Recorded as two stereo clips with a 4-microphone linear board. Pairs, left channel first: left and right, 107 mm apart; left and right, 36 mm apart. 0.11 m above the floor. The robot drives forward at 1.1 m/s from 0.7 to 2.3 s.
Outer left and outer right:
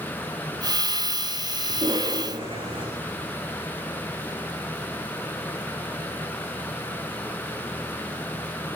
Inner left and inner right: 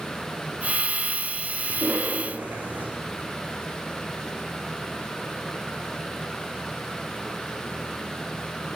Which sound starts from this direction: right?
A cough, at 1.7 s.